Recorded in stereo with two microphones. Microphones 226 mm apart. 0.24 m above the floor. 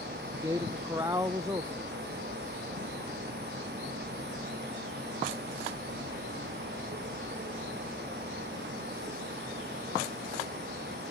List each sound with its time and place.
0.3 s a man speaking: 15° right (ahead or behind)